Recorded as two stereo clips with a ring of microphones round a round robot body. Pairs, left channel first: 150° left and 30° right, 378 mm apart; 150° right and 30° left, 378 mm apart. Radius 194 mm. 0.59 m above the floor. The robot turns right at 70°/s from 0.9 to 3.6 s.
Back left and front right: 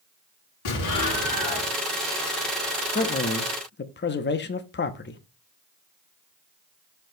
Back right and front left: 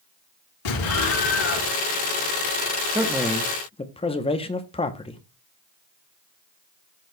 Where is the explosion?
170° right, 4 m; by 1.7 s 110° right, 4 m.